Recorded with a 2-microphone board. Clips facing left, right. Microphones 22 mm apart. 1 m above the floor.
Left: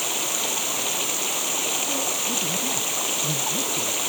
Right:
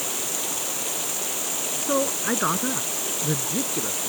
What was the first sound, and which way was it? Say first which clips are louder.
Running water: left 3 dB; 25° left (ahead or behind).